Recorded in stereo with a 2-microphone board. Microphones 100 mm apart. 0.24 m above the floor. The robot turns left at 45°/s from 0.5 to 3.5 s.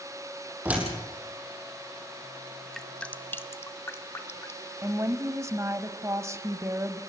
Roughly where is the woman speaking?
Right.